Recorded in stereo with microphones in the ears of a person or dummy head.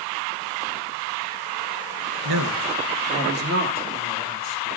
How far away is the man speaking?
About 0.6 m.